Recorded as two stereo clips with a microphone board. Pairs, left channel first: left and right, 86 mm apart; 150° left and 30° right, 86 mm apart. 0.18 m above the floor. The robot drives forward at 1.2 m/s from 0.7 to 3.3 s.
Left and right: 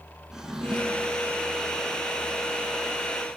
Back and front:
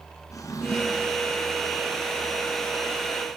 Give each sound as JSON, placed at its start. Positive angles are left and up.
{"t": 0.3, "sound": "a drawer", "azimuth_deg": -175, "distance_m": 1.1}